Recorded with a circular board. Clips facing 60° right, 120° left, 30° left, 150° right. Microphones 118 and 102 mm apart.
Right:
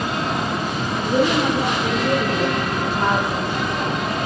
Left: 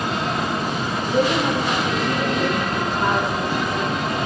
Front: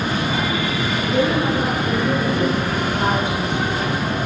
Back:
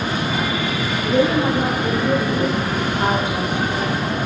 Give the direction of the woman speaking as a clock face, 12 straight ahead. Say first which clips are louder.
Right 2 dB, back 2 dB; 3 o'clock.